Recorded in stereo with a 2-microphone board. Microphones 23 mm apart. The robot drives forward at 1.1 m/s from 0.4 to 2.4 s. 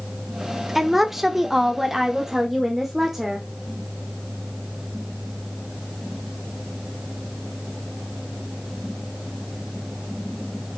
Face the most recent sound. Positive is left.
turn(degrees=-10)  # may be behind; listen again after turning